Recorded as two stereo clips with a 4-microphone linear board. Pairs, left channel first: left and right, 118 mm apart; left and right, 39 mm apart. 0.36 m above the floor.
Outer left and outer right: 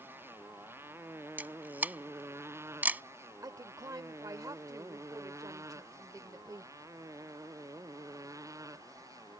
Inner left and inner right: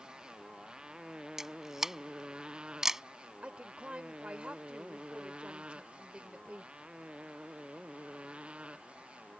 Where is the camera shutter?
15° right (ahead or behind).